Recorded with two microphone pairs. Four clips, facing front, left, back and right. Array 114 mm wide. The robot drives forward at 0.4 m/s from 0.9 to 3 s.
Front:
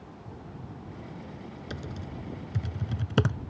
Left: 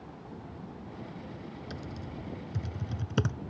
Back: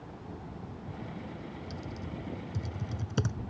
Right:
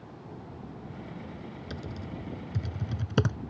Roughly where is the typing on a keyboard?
Ahead right.